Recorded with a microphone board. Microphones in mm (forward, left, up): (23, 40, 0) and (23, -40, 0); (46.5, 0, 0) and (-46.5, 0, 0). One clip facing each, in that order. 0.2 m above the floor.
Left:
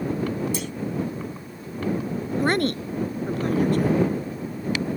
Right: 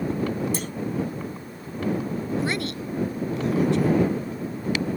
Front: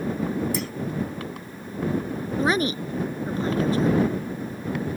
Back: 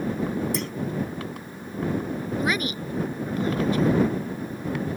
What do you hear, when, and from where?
0.5 s a clunk: 85° right
2.4 s a woman speaking: 55° left